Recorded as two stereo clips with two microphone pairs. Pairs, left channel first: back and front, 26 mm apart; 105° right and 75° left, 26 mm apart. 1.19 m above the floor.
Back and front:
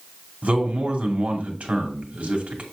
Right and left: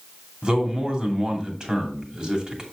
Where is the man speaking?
25° left, 2.5 m.